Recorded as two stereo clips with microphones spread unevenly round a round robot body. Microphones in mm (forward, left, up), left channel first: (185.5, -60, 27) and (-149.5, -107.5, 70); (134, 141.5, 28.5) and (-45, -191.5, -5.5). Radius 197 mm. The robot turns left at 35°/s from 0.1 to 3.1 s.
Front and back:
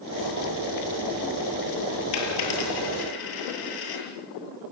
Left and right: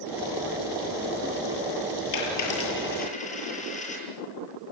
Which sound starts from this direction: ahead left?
A dropped coin, at 2.1 s.